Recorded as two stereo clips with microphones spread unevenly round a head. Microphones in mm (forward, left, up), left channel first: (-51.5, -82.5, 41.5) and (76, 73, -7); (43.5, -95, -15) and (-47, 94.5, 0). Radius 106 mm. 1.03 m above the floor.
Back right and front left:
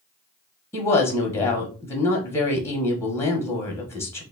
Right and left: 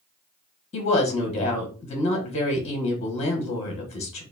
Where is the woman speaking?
40° right, 0.9 m.